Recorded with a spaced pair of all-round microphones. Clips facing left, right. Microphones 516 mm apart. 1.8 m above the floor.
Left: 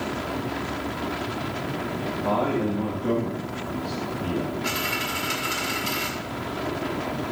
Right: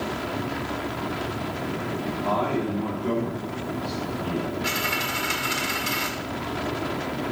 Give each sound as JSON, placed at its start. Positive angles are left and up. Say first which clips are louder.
{"t": 2.2, "sound": "a man speaking", "louder": "left 3 dB", "side_deg": 65, "distance_m": 2.5}
{"t": 4.6, "sound": "a dropped coin", "louder": "even", "side_deg": -20, "distance_m": 1.7}